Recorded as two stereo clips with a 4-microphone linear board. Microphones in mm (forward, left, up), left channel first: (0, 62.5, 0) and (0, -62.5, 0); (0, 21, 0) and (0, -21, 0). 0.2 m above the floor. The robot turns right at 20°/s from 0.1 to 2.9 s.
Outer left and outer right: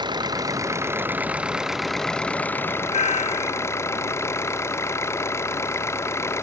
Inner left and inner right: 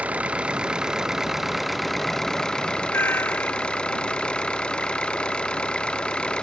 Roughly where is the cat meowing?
Left.